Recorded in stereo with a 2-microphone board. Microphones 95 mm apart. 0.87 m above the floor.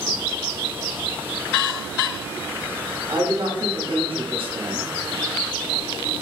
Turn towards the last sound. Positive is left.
turn(degrees=-60)  # may be behind; listen again after turning